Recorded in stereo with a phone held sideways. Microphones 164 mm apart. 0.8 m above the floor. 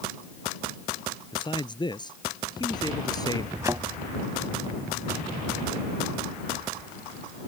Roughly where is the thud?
Centre.